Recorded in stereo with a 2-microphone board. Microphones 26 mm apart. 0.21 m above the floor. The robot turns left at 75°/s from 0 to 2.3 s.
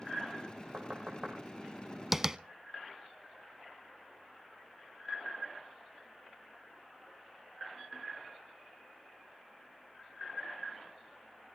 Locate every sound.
0.7 s knocking: 60° right (ahead or behind), 5 m; by 1.4 s 15° right (ahead or behind), 5 m
2.1 s tapping: 10° right (ahead or behind), 0.6 m; by 2.4 s 20° right (ahead or behind), 0.6 m